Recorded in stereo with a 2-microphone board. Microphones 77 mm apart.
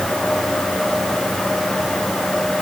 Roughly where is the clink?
No clink in this recording.